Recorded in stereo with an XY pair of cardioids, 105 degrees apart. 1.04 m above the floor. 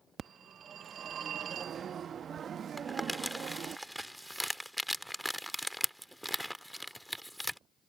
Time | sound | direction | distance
0.2 | a phone ringing | 45° right | ?
2.8 | crumpling | 5° left | ?